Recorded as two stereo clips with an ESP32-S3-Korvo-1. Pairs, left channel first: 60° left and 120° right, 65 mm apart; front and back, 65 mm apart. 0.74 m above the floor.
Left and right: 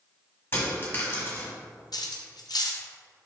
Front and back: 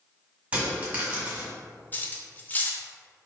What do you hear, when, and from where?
0.5 s a dropped coin: 110° left, 1.6 m
1.9 s cutlery clinking: 60° left, 0.5 m